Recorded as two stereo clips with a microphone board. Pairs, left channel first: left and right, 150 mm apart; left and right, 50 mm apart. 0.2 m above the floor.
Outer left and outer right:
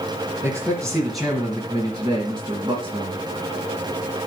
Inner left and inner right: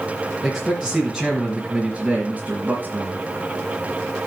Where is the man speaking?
10° left (ahead or behind), 2.5 m; by 3.2 s 40° right (ahead or behind), 2 m.